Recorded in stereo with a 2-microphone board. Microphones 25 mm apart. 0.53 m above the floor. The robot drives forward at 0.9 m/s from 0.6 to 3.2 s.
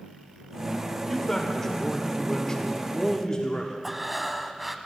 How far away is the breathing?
About 0.6 m.